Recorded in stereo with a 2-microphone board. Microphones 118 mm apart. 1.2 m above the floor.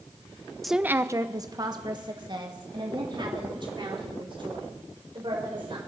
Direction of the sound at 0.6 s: Centre (ahead or behind).